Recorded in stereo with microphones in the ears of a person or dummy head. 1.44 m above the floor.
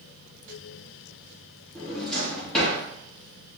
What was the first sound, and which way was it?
A drawer, 5° left (ahead or behind).